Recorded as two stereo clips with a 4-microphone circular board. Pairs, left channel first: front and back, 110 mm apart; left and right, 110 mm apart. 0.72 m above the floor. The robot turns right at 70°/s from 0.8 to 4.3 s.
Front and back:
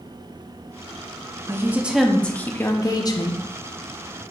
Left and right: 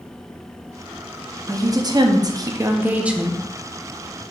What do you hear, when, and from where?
1.5 s a woman speaking: 130° right, 0.5 m; by 3.4 s 5° left, 0.5 m